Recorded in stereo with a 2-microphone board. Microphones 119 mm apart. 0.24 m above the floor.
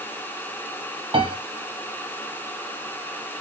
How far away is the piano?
About 0.9 m.